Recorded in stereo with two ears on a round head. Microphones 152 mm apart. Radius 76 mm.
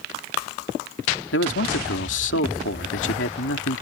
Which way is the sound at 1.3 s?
75° left (ahead or behind).